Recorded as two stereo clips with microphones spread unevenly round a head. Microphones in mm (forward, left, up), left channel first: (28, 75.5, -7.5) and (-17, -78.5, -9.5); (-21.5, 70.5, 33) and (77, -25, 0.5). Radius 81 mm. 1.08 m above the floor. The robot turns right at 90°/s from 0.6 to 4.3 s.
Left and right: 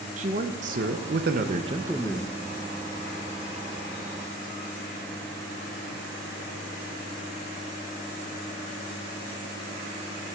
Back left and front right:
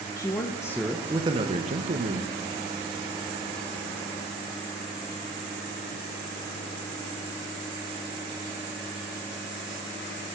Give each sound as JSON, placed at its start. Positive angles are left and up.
{"t": 0.2, "sound": "a man speaking", "azimuth_deg": -150, "distance_m": 0.8}